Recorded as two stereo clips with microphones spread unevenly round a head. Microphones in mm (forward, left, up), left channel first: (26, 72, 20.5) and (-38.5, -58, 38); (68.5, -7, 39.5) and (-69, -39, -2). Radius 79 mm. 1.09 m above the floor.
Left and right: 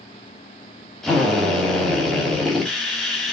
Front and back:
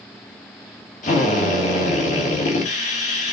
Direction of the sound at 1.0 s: 25° right.